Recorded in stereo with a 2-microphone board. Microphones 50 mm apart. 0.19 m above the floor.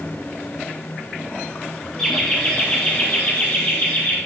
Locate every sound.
2.0 s laughter: 10° left (ahead or behind), 3 m; by 4.2 s 35° left (ahead or behind), 4 m